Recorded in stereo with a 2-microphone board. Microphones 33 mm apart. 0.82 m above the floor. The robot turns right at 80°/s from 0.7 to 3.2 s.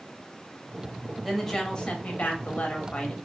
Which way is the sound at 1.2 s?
5° right.